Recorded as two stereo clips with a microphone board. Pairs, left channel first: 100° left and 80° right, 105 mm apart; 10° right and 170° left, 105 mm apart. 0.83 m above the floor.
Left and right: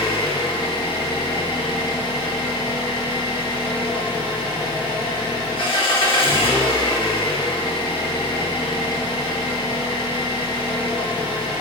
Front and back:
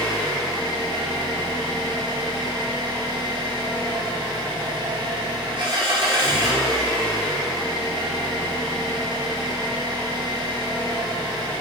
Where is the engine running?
130° left, 0.7 m.